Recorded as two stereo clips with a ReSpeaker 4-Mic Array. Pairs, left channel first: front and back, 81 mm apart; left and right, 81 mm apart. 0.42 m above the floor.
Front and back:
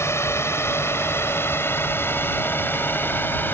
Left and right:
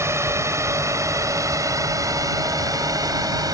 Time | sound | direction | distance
0.0 | a drone | 45° right | ?